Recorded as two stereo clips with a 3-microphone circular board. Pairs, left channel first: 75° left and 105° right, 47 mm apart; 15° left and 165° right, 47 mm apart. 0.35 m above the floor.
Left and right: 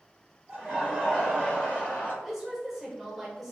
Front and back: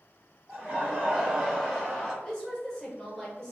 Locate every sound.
0.5 s laughter: 165° right, 1.1 m; by 2.1 s 95° left, 1.4 m
2.2 s a woman speaking: 30° right, 0.8 m